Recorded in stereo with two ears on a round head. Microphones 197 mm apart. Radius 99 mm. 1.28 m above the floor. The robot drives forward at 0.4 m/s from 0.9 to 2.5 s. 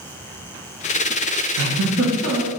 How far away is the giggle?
About 1.1 m.